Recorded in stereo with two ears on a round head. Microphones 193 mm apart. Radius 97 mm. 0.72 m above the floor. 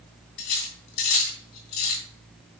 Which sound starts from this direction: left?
Cutlery clinking, at 0.4 s.